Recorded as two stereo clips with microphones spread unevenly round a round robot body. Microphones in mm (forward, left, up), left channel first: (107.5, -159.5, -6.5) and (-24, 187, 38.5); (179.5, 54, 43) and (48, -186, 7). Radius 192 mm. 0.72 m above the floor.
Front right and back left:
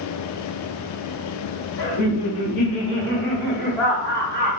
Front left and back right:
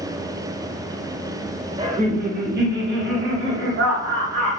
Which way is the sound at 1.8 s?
50° right.